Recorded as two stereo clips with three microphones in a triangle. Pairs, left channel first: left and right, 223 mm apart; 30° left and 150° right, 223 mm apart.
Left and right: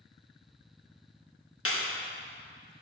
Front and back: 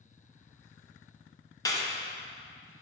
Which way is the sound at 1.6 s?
105° left.